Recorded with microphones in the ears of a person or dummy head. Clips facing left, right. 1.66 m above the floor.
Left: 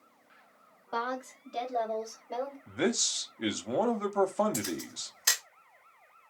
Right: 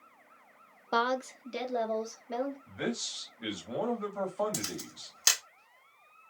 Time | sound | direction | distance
0.9 | a woman speaking | 60° right (ahead or behind) | 0.5 m
2.7 | a man speaking | 60° left (ahead or behind) | 0.7 m
4.5 | a camera shutter | 75° right (ahead or behind) | 1.5 m